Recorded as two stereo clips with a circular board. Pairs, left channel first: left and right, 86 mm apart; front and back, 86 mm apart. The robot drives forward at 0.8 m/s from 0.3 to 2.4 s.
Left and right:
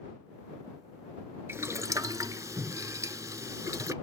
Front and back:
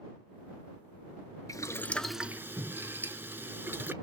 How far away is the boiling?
About 0.7 m.